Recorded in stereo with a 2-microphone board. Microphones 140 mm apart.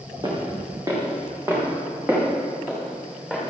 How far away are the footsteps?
About 4.5 m.